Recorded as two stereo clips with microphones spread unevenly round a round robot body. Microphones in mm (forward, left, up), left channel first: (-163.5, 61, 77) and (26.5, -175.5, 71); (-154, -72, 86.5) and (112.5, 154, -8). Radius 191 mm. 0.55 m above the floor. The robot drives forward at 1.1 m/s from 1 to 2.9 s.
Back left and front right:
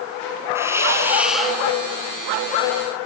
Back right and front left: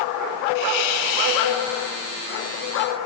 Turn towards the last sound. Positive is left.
turn(degrees=-155)